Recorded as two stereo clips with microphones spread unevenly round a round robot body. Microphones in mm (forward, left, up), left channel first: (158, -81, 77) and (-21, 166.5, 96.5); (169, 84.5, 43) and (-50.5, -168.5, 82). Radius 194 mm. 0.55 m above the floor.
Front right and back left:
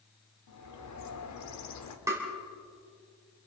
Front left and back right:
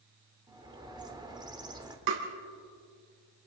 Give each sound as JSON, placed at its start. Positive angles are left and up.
{"t": 0.5, "sound": "a bird", "azimuth_deg": -50, "distance_m": 1.9}
{"t": 2.1, "sound": "tapping", "azimuth_deg": -155, "distance_m": 3.0}